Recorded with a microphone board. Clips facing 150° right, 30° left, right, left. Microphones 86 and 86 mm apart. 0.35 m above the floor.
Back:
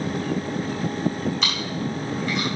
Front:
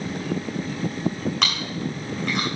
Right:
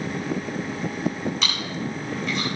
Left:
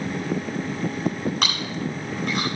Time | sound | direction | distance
1.4 | chewing | 55° left | 4.5 m